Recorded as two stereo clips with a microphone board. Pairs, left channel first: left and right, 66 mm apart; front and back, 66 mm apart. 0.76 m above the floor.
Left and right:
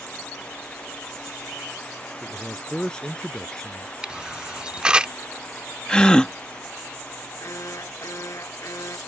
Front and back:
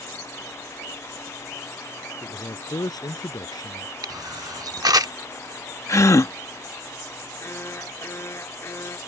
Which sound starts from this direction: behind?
A camera shutter, at 4.0 s.